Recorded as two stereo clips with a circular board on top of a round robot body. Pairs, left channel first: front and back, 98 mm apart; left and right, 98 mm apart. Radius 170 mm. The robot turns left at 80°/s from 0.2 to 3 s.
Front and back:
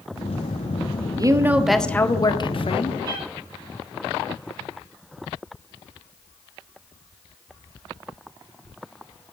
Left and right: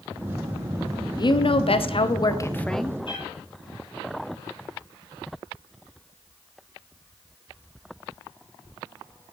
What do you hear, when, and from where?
1.2 s a woman speaking: 135° left, 1.7 m; by 3.0 s 10° right, 1.7 m
3.0 s a cat meowing: 125° left, 8 m